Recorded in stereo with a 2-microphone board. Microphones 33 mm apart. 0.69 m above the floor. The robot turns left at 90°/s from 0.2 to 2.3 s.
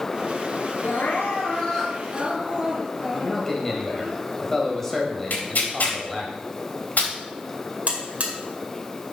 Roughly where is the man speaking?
Centre.